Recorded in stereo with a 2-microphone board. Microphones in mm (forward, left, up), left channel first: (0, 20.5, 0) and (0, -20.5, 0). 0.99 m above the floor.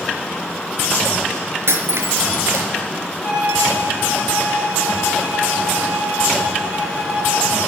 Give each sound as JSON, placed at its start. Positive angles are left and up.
{"t": 1.7, "sound": "breaking glass", "side_deg": -75, "distance_m": 3.5}
{"t": 3.2, "sound": "a violin", "side_deg": -55, "distance_m": 4.5}